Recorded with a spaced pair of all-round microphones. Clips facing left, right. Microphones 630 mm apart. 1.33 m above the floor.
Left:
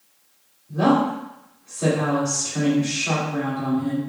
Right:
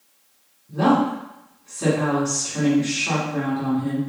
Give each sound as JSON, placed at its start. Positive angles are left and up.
{"t": 0.7, "sound": "a woman speaking", "side_deg": -25, "distance_m": 2.5}